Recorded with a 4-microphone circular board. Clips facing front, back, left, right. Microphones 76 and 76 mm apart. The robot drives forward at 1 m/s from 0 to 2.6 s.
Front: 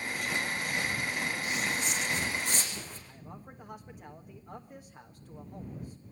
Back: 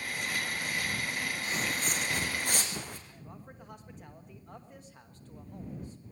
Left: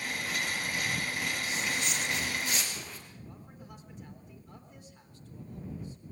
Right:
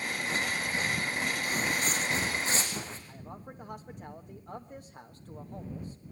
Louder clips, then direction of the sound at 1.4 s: Front 1 dB, right 3 dB; 130° right.